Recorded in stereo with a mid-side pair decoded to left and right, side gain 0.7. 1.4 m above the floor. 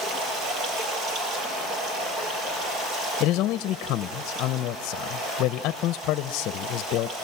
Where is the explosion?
I don't hear an explosion.